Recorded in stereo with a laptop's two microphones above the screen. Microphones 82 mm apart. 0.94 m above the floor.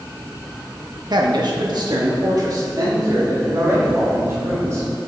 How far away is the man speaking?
About 1.4 m.